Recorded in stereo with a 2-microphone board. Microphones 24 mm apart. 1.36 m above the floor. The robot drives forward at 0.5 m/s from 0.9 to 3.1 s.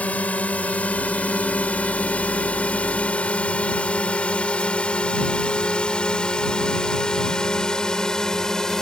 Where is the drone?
85° left; by 8.8 s 25° left (ahead or behind).